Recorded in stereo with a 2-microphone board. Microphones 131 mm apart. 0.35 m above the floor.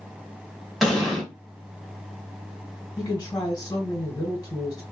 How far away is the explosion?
About 1.3 m.